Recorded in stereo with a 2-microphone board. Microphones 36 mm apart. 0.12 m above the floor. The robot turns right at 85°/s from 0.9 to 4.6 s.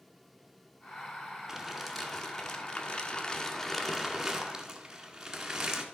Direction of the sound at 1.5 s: 15° right (ahead or behind).